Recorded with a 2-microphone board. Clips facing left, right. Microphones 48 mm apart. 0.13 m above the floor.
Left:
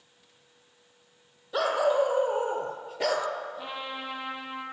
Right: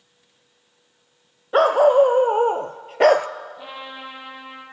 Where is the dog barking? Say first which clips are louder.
Right 10 dB; 45° right (ahead or behind), 1.6 m; by 3.3 s 50° right (ahead or behind), 0.7 m.